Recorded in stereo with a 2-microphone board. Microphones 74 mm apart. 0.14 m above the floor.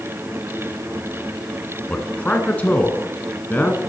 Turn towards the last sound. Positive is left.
turn(degrees=20)  # may be behind; listen again after turning